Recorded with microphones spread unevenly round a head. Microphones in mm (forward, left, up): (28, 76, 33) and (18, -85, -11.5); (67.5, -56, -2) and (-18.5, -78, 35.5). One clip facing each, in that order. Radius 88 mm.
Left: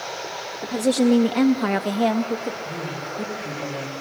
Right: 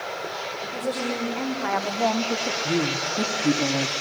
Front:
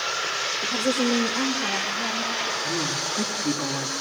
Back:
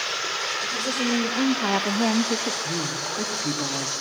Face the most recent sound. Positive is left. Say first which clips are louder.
# right 6 dB, front 1 dB
turn(degrees=-70)